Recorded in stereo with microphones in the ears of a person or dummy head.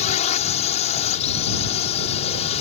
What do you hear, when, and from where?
0.0 s a drone: 40° left (ahead or behind)